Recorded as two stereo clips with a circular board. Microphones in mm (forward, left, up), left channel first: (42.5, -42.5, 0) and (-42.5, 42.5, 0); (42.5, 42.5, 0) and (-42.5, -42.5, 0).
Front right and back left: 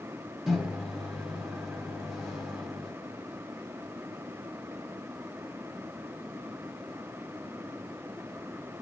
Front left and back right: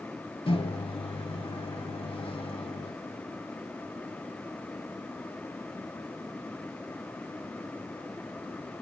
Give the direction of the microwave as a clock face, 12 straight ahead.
11 o'clock.